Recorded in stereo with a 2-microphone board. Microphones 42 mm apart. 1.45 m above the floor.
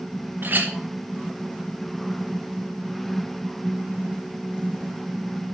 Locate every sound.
0.4 s a clink: 50° right (ahead or behind), 0.7 m